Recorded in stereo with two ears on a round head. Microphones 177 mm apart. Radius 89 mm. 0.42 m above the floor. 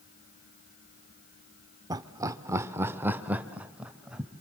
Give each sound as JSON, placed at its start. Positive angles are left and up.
{"t": 1.9, "sound": "laughter", "side_deg": -20, "distance_m": 1.1}